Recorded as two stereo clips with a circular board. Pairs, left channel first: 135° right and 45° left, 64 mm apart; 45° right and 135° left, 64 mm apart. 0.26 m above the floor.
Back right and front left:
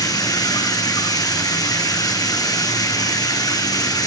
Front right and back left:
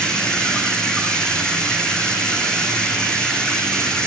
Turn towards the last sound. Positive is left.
turn(degrees=-120)